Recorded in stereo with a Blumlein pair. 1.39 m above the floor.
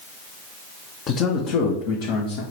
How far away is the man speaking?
About 1.6 m.